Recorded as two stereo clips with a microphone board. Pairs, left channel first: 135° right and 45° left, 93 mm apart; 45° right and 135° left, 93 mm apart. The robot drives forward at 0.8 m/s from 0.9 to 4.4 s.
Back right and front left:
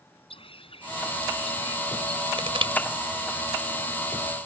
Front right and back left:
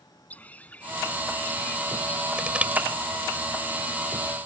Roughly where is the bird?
Behind right.